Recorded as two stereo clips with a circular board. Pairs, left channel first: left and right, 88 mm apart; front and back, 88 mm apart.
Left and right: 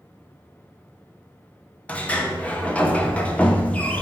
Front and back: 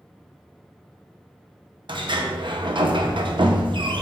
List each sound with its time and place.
1.9 s a sliding door: 165° left, 0.8 m